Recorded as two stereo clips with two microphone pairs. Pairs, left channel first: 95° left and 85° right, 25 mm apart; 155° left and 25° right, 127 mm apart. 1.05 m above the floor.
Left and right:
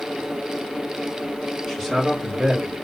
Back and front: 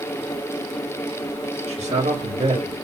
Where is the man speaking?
10° left, 1.4 m; by 2.7 s 25° right, 2 m.